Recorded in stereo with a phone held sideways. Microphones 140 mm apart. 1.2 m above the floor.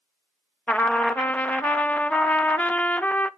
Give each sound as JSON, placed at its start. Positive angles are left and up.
{"t": 0.7, "sound": "a trumpet", "side_deg": 10, "distance_m": 0.6}